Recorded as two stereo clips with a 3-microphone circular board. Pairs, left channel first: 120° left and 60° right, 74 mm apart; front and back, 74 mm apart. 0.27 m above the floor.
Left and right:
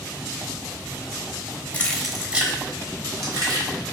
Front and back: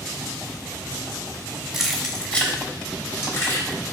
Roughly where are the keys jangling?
Left.